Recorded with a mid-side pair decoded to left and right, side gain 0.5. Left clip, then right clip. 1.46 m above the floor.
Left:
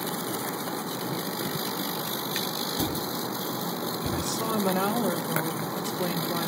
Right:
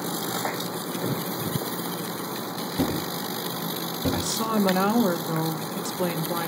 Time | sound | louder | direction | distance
2.8 | a thud | right 2 dB | 65° right | 2.5 m
4.1 | a woman speaking | right 3 dB | 35° right | 2 m